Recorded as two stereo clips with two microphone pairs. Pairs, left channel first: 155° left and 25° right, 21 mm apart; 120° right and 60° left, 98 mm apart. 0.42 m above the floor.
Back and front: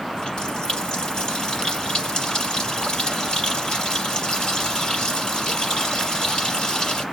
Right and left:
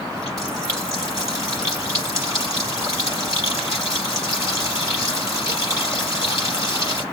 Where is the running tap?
115° left, 6 m.